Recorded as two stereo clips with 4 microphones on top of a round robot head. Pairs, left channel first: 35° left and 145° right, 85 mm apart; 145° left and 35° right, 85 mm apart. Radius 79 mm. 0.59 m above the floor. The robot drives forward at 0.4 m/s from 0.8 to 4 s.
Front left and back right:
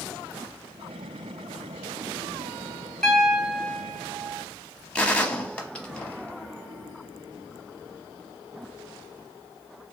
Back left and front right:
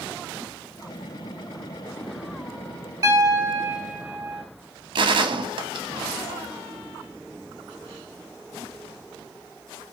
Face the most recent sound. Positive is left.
turn(degrees=-40)